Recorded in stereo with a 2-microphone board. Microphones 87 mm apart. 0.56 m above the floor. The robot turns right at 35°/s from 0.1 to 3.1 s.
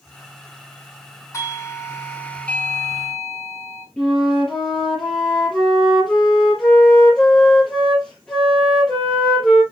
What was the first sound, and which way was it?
A doorbell, 115° left.